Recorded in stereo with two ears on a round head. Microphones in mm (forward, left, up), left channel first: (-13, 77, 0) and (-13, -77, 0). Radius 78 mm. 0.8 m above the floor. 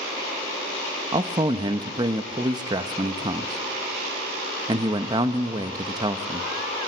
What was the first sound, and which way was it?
A man speaking, 25° right (ahead or behind).